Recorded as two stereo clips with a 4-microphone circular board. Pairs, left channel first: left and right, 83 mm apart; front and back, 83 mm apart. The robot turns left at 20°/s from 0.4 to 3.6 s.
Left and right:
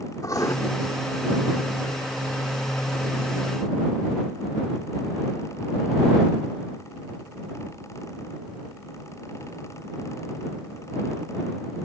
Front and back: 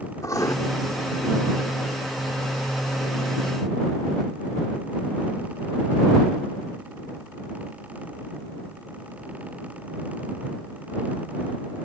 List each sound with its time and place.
0.2 s writing: 45° left